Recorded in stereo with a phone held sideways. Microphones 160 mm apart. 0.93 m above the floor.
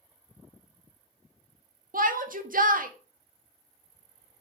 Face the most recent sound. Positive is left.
turn(degrees=-65)  # may be behind; listen again after turning